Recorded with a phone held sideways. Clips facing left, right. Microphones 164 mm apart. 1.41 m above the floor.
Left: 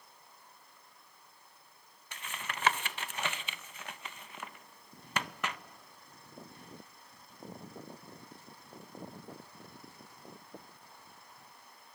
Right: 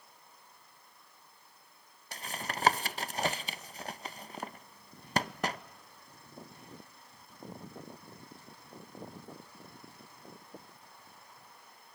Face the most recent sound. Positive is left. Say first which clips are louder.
# right 4 dB
turn(degrees=-35)  # may be behind; listen again after turning